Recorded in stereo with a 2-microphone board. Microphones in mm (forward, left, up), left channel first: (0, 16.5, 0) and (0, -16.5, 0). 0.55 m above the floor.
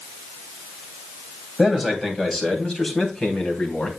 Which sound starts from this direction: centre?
A man speaking, at 1.6 s.